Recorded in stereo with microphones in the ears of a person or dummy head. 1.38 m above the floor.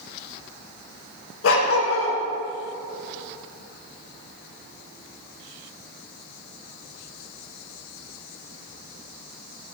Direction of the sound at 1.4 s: 75° left (ahead or behind).